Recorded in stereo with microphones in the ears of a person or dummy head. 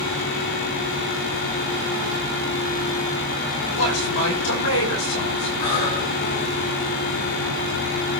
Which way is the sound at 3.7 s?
80° left.